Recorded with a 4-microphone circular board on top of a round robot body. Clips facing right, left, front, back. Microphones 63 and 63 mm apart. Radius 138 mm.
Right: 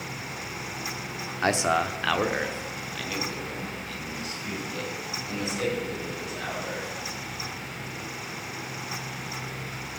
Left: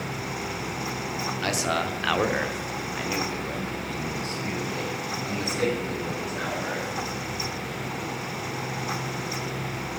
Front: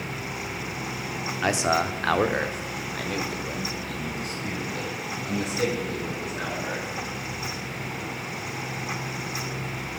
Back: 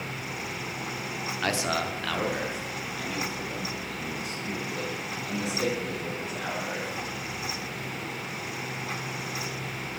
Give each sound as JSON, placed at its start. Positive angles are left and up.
{"t": 1.4, "sound": "a man speaking", "azimuth_deg": -70, "distance_m": 1.0}